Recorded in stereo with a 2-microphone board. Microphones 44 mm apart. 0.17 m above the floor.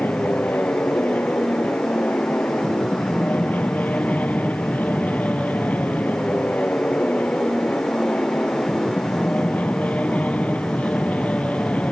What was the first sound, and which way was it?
An aircraft, 45° left (ahead or behind).